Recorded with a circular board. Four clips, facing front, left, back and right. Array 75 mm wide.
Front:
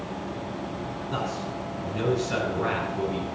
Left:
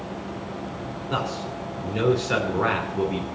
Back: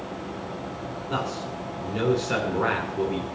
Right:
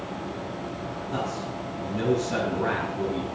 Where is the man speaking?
115° left, 2.5 m.